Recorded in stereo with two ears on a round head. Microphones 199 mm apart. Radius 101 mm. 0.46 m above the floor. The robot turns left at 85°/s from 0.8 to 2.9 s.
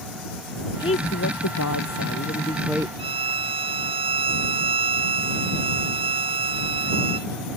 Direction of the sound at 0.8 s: 160° left.